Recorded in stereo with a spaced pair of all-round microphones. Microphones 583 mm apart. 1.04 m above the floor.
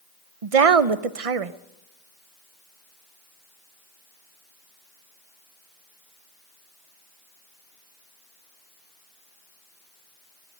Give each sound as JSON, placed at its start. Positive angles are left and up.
{"t": 0.4, "sound": "a woman speaking", "side_deg": -70, "distance_m": 0.7}